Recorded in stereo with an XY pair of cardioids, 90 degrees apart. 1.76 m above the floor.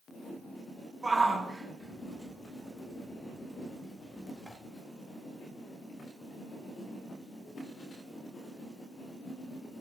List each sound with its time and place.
1.0 s a shout: 30° right, 3.5 m; by 4.6 s straight ahead, 3.5 m